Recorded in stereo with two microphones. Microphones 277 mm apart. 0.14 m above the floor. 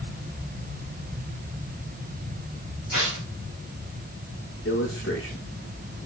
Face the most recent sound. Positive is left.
turn(degrees=45)  # may be behind; listen again after turning